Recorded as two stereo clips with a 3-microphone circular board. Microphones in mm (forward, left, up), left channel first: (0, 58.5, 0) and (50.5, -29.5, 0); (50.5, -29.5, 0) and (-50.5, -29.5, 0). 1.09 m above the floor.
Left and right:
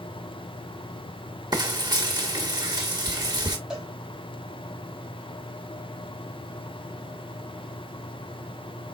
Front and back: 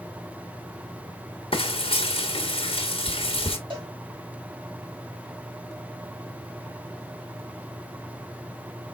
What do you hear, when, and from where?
1.5 s frying: 15° right, 1.3 m
3.7 s a cowbell: 140° right, 3 m